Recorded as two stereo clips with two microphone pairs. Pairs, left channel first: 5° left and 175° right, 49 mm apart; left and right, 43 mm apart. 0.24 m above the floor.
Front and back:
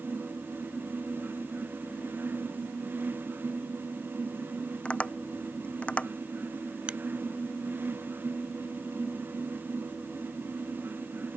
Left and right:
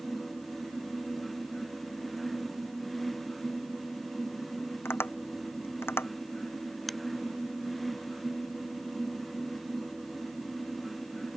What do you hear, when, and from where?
4.8 s tapping: 70° left
6.9 s a finger snap: 175° right